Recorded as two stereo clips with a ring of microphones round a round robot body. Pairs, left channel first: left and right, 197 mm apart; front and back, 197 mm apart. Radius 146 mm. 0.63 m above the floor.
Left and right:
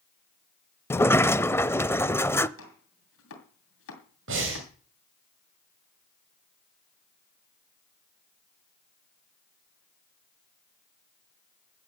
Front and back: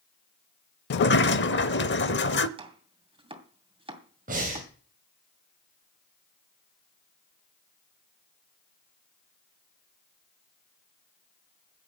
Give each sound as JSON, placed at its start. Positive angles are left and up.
{"t": 0.9, "sound": "a sliding door", "azimuth_deg": 15, "distance_m": 0.6}
{"t": 2.6, "sound": "chopping", "azimuth_deg": 115, "distance_m": 2.5}
{"t": 4.3, "sound": "breathing", "azimuth_deg": -120, "distance_m": 3.5}